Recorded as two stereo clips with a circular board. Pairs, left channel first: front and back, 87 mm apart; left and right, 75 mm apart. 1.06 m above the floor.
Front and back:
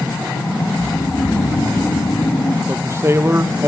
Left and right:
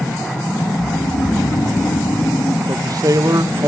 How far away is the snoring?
About 1.8 m.